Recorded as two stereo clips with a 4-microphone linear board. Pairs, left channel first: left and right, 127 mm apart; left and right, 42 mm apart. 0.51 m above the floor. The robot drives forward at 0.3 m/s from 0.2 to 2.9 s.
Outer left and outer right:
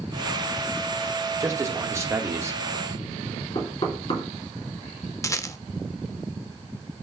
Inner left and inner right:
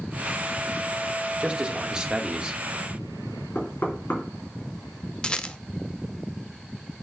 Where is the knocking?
50° left (ahead or behind), 3 m.